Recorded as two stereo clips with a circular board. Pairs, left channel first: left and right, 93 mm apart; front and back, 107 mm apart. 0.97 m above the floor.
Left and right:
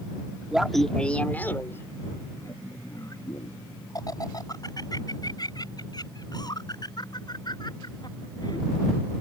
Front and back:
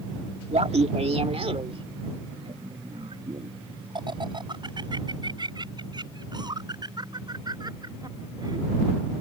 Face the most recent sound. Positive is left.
turn(degrees=130)